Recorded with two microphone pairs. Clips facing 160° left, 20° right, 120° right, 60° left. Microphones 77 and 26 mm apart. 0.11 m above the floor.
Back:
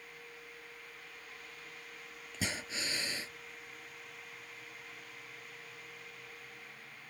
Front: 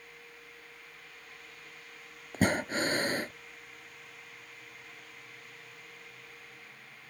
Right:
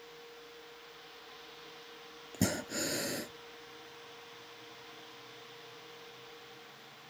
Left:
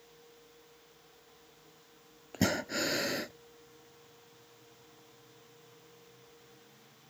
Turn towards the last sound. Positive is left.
turn(degrees=-5)